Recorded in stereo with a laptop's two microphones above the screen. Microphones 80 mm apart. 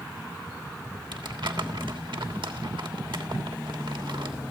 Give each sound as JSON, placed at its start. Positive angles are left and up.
{"t": 1.1, "sound": "crumpling", "side_deg": -80, "distance_m": 3.0}